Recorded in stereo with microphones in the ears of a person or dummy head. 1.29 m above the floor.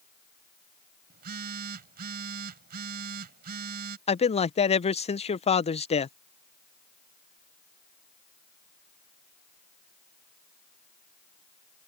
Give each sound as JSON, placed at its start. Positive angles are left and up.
{"t": 1.1, "sound": "a phone buzzing", "side_deg": -55}
{"t": 4.1, "sound": "a man speaking", "side_deg": 30}